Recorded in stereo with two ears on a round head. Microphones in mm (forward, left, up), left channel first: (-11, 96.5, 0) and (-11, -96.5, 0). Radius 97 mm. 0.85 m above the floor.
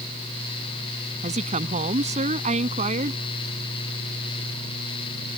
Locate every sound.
1.2 s a woman speaking: 30° right (ahead or behind)